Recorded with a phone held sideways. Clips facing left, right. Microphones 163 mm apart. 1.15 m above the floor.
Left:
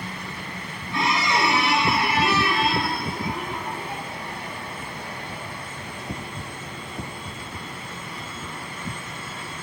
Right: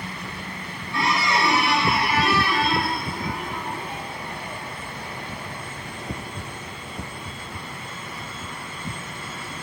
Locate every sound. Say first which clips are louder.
0.9 s a squeak: even; 20° left (ahead or behind), 0.9 m